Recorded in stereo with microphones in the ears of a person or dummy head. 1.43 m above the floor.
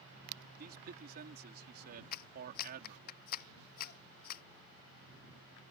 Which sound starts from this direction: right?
A man speaking, at 0.6 s.